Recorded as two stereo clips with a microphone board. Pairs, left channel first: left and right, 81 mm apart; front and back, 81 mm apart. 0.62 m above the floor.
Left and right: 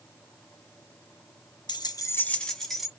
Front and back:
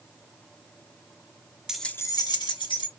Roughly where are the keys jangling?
Left.